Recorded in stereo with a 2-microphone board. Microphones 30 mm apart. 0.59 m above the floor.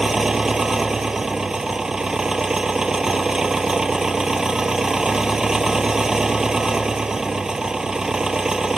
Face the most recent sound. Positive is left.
turn(degrees=-20)  # may be behind; listen again after turning